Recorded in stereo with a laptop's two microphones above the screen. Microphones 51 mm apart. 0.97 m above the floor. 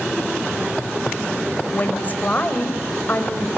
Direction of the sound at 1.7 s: 30° left (ahead or behind).